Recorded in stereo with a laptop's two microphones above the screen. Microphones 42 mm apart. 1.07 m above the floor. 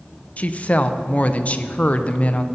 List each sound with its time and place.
0.4 s a woman speaking: 35° left (ahead or behind), 0.5 m